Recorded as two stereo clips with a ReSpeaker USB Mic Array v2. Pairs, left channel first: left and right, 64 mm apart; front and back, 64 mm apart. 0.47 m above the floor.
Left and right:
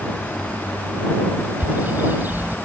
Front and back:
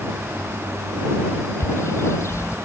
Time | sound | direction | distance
1.6 | a bird | 35° right | ?